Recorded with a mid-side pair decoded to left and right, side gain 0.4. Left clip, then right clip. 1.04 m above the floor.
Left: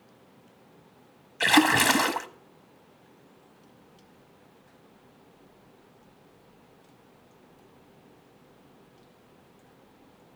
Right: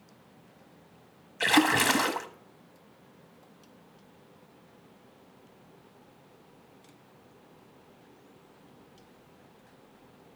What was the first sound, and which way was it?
A splash, 20° left.